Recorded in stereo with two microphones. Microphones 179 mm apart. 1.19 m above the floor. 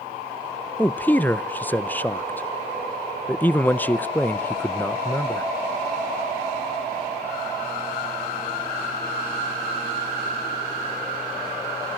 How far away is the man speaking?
About 0.5 m.